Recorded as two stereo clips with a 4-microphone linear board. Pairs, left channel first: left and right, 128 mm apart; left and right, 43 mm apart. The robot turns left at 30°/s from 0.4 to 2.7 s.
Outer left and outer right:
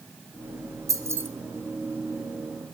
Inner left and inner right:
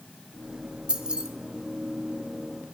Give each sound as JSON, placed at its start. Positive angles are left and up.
{"t": 0.9, "sound": "keys jangling", "side_deg": -25, "distance_m": 1.3}